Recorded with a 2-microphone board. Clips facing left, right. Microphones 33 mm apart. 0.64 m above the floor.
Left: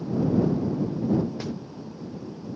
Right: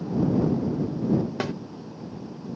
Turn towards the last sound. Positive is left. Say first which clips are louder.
# right 4 dB
turn(degrees=-80)